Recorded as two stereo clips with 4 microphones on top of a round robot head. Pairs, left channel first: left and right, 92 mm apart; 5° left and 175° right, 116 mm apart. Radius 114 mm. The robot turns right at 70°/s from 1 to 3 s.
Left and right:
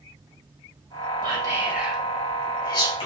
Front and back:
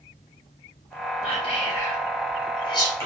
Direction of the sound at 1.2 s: 50° right.